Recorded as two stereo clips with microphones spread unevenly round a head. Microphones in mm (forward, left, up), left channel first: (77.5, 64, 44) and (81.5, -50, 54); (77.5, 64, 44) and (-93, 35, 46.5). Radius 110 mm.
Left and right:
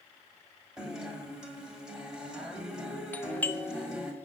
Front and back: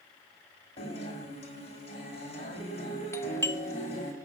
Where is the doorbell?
60° left, 0.5 m.